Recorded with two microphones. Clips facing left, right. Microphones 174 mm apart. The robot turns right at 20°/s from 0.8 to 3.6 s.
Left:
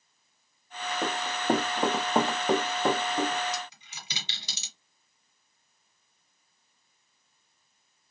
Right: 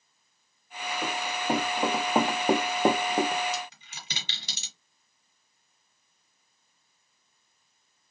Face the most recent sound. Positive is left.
turn(degrees=-55)  # may be behind; listen again after turning